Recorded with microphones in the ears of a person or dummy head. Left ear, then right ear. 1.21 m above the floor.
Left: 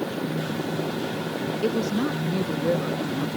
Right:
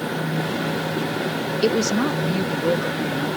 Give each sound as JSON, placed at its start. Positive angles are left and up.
{"t": 1.6, "sound": "a woman speaking", "side_deg": -35}